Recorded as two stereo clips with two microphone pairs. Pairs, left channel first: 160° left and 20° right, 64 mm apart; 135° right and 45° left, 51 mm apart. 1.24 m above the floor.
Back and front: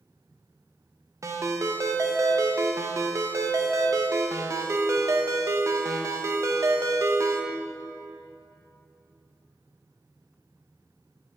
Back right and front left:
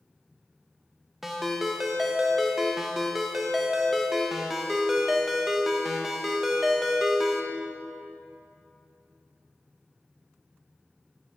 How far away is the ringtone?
About 0.5 m.